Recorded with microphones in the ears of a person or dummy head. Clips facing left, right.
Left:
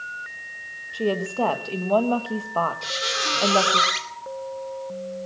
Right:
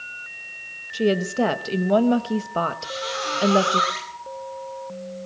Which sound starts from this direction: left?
A squeak, at 2.8 s.